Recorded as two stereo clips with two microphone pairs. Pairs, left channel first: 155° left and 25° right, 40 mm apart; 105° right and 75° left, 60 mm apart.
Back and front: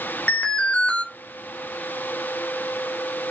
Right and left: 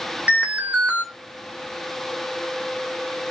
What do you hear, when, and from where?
0.3 s an alarm: 125° left, 0.7 m